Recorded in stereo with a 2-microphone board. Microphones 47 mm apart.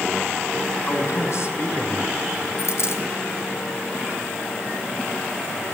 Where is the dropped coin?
70° left (ahead or behind), 3 m.